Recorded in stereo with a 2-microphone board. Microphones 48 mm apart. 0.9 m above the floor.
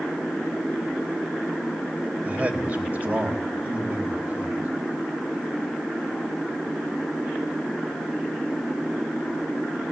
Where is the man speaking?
35° right (ahead or behind), 4 m.